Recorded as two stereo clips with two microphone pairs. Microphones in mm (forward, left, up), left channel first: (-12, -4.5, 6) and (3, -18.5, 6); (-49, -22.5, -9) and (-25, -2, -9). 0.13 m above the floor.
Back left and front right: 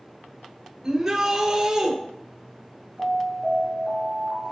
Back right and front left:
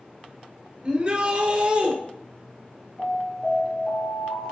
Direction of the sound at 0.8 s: 5° left.